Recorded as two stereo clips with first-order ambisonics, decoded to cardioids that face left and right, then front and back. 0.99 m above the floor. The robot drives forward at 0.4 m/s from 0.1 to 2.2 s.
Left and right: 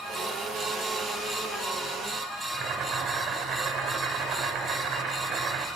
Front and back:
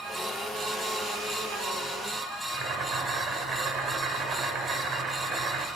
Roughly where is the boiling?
Behind right.